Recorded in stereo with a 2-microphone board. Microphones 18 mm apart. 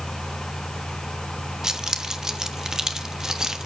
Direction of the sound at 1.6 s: 35° right (ahead or behind).